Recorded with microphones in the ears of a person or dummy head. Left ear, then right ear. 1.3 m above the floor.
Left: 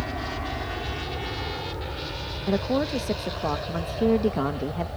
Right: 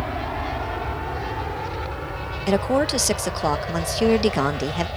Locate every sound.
0.0 s an aircraft: 60° right (ahead or behind); by 5.0 s 70° right (ahead or behind)
2.5 s a woman speaking: 70° right (ahead or behind)